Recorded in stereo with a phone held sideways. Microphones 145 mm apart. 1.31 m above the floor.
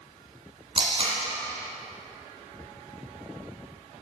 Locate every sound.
0.8 s tape being pulled: 45° right (ahead or behind), 1.9 m